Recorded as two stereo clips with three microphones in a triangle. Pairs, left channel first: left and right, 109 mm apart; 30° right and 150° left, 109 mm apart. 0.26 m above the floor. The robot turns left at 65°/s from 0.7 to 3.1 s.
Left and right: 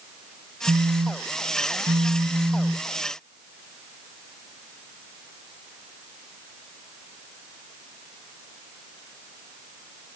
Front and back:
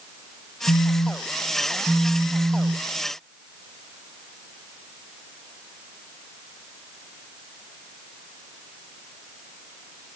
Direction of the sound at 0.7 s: 45° right.